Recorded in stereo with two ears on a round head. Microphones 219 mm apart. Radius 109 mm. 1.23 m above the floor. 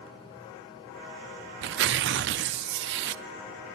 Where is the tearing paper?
50° right (ahead or behind), 0.5 m.